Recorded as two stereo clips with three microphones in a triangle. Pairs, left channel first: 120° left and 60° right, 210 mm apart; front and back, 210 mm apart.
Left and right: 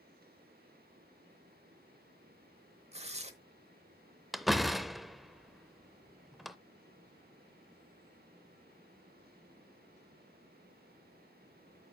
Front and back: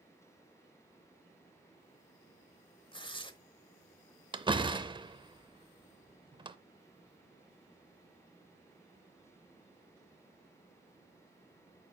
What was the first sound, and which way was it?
Tearing paper, 40° right.